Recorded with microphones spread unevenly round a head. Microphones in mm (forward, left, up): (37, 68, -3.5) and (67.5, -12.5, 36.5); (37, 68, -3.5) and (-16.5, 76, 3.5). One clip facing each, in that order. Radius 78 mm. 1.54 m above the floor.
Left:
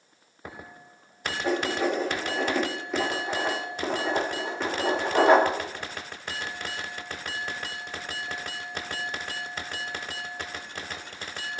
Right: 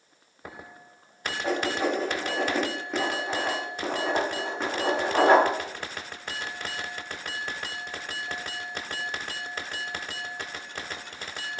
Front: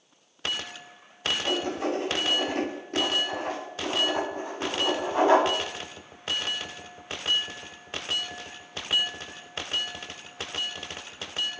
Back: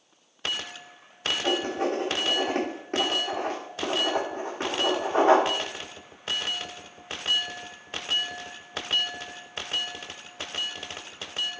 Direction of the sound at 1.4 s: 125° right.